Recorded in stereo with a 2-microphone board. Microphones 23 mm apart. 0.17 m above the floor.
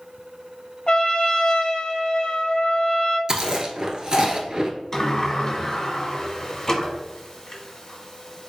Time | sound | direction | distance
0.9 | a trumpet | 45° left (ahead or behind) | 0.6 m
3.3 | chewing | 30° right (ahead or behind) | 0.8 m
4.9 | a sliding door | 20° left (ahead or behind) | 1.3 m